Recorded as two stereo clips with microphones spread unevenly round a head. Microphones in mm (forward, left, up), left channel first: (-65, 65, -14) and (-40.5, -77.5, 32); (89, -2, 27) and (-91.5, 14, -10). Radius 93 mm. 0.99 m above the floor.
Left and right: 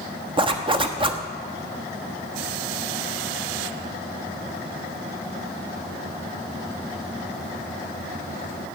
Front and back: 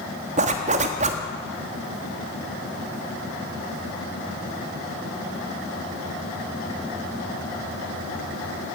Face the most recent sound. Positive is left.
turn(degrees=-135)